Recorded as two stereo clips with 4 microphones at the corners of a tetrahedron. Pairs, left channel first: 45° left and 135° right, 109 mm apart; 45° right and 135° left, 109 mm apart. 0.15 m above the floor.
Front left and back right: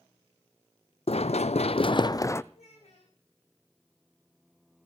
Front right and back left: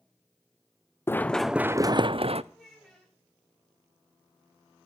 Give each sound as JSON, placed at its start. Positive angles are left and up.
{"t": 1.1, "sound": "running footsteps", "azimuth_deg": 20, "distance_m": 0.6}
{"t": 2.5, "sound": "a child speaking", "azimuth_deg": 40, "distance_m": 9.5}